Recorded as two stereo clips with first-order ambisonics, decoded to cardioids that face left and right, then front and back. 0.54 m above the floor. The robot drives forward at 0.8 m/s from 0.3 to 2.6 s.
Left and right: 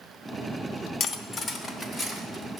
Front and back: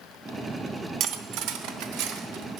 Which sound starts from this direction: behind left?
Cutlery clinking, at 1.0 s.